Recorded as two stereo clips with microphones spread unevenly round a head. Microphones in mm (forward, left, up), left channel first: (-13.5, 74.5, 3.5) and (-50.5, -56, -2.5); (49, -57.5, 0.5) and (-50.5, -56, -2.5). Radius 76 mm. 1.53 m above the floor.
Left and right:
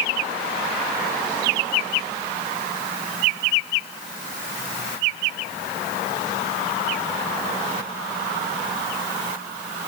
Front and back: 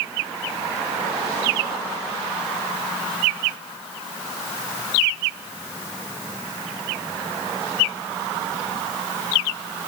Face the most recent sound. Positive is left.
No sound to turn to.